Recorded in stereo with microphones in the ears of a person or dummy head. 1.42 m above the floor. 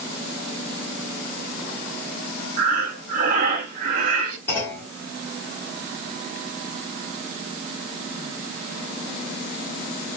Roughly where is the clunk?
Centre.